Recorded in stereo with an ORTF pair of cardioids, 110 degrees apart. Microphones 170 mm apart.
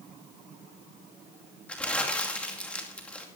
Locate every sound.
1.7 s crumpling: 5° left, 2.5 m